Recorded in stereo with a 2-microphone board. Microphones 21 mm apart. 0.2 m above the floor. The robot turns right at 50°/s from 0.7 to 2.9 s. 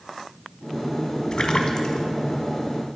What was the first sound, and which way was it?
A splash, 40° left (ahead or behind).